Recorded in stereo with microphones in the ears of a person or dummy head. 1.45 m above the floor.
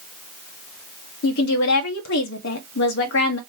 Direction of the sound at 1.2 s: 60° left (ahead or behind).